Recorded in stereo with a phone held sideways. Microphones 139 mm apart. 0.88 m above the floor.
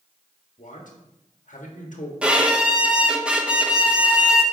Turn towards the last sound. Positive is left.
turn(degrees=-10)  # may be behind; listen again after turning